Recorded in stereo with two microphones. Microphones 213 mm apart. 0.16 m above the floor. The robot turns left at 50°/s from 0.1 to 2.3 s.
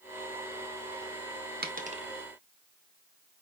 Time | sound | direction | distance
1.6 | a dropped coin | 50° right (ahead or behind) | 1.0 m